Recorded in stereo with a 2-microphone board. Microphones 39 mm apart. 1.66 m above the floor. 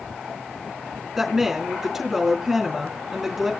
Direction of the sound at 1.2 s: 10° right (ahead or behind).